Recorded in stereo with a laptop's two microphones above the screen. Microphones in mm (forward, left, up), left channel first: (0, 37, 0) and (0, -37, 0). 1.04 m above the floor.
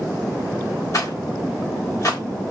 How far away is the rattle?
About 1.5 m.